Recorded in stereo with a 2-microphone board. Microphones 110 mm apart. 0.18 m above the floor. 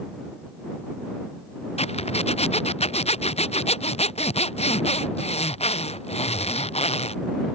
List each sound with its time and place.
1.8 s a zipper: 70° left (ahead or behind)